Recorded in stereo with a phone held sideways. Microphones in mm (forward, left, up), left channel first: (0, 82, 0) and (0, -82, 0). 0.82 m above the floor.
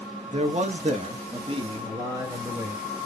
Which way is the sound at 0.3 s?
40° right (ahead or behind).